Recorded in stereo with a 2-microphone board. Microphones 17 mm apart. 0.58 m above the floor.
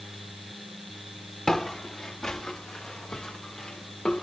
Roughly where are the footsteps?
Left.